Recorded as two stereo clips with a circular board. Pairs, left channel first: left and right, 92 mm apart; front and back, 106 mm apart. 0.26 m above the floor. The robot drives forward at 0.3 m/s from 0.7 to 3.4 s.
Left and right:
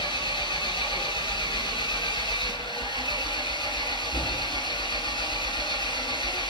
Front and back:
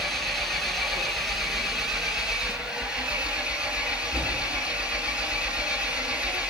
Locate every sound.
0.0 s an engine running: 90° left, 4 m; by 6.5 s 100° left, 4 m